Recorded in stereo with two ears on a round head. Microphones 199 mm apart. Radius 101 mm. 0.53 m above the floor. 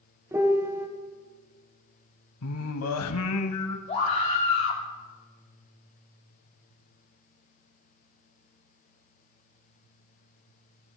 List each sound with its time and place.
0.3 s a piano: 10° right (ahead or behind), 0.9 m
2.4 s singing: 65° left (ahead or behind), 0.9 m
3.9 s a scream: 30° left (ahead or behind), 1.1 m